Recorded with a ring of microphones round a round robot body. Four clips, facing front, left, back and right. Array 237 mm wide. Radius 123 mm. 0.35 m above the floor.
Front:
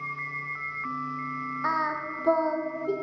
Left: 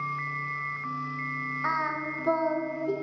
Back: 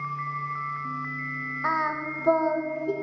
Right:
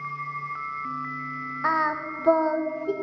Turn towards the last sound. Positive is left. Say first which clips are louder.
# right 5 dB, back 2 dB
turn(degrees=-90)